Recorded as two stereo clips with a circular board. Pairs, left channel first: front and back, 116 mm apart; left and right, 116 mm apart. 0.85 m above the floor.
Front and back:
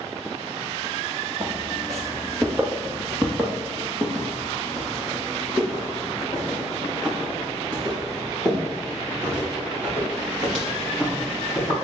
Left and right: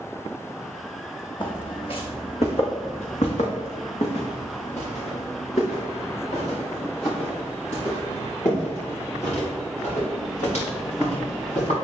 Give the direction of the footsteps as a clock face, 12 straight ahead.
8 o'clock.